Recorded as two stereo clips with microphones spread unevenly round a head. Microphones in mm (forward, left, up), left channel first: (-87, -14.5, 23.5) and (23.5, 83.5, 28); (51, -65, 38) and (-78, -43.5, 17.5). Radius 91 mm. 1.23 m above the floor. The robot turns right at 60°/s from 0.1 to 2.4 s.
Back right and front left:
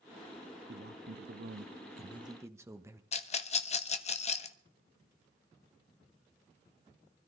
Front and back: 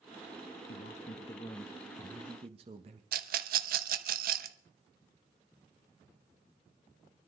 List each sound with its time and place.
0.7 s a man speaking: 10° left, 1.1 m; by 3.0 s 115° left, 1.1 m
3.1 s a rattle: 175° left, 0.9 m